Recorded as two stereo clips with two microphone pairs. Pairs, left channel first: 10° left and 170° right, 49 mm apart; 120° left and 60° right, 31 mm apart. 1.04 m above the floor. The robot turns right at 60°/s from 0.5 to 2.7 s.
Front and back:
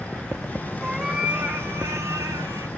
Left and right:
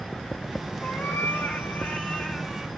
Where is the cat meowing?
100° left, 1.6 m; by 2.7 s 145° right, 1.6 m.